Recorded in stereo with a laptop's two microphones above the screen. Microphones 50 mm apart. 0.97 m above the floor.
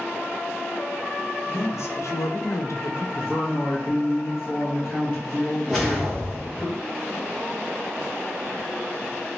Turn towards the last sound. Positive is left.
turn(degrees=0)  # may be behind; listen again after turning